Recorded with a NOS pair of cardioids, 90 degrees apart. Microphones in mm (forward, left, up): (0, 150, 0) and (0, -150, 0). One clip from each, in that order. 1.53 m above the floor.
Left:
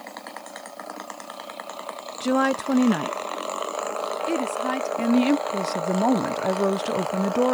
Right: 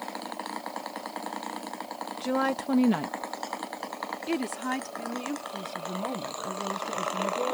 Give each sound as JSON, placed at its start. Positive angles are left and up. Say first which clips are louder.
{"t": 2.2, "sound": "a woman speaking", "louder": "left 6 dB", "azimuth_deg": 35}
{"t": 5.0, "sound": "a woman speaking", "louder": "left 12 dB", "azimuth_deg": 70}